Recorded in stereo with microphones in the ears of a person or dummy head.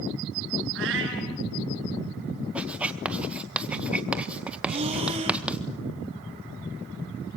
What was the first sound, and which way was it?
A cat meowing, 70° right (ahead or behind).